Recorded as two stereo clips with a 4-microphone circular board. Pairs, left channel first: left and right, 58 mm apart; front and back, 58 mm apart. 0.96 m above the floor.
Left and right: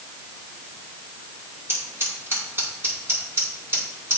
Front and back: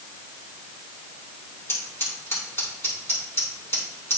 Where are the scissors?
45° right, 5 m.